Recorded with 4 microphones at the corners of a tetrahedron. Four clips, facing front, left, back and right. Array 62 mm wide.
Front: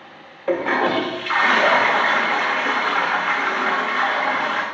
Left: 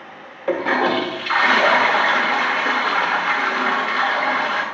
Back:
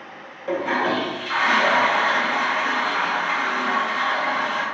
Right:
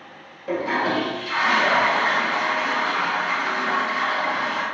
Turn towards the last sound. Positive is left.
turn(degrees=60)